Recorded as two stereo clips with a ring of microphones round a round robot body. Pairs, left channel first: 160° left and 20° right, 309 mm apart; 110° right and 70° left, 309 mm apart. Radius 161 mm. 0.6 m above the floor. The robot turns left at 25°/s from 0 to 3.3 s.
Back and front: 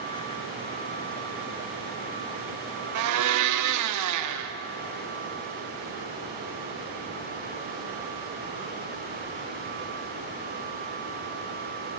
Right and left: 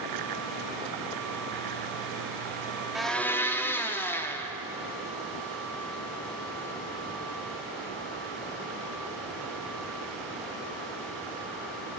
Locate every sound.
3.0 s a blender: 20° right, 0.7 m; by 4.5 s 30° right, 0.7 m